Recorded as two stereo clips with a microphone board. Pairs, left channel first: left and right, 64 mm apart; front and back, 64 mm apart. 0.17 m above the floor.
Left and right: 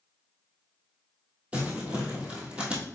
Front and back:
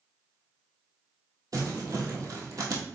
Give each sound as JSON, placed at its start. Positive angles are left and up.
{"t": 1.5, "sound": "crumpling", "azimuth_deg": -160, "distance_m": 1.3}